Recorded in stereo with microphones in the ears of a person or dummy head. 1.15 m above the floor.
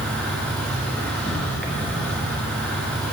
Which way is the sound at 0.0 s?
5° left (ahead or behind).